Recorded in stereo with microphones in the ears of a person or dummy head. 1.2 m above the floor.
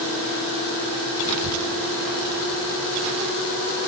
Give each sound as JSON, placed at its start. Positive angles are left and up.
{"t": 1.2, "sound": "a child speaking", "side_deg": -70}